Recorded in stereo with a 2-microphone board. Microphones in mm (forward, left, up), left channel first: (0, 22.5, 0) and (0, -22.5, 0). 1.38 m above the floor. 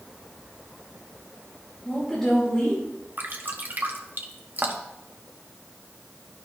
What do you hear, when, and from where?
1.9 s a woman speaking: 5° left (ahead or behind), 2.5 m
3.2 s dripping: 40° right (ahead or behind), 1.0 m